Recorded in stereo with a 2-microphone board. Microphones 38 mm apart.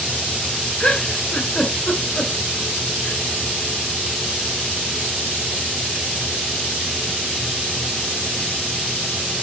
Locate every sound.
0.8 s a giggle: 40° left (ahead or behind), 1.9 m